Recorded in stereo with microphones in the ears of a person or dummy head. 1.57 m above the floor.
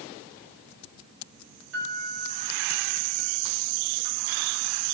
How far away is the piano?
About 4.5 m.